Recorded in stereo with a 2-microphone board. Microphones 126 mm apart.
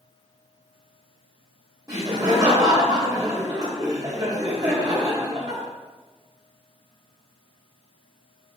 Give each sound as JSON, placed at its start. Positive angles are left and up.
{"t": 1.9, "sound": "laughter", "side_deg": -30, "distance_m": 1.2}